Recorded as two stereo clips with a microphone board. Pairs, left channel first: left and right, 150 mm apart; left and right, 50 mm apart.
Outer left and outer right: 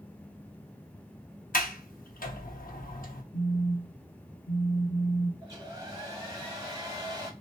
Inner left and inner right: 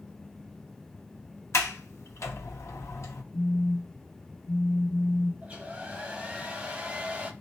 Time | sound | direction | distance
1.5 | a sliding door | 70° left (ahead or behind) | 0.7 m
3.3 | a phone buzzing | 70° left (ahead or behind) | 0.9 m
5.4 | a hair dryer | 25° right (ahead or behind) | 1.5 m